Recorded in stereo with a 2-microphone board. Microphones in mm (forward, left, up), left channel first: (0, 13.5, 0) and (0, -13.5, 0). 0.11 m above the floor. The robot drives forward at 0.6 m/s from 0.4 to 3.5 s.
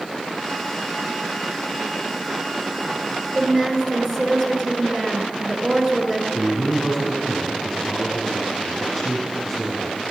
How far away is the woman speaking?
About 1.7 m.